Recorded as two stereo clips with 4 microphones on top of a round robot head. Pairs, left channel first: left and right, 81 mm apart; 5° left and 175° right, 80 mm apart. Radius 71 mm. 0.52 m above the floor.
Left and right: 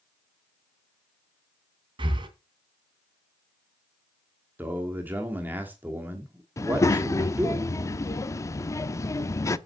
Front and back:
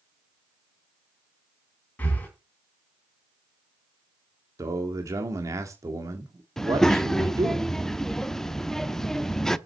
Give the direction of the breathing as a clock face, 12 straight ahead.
2 o'clock.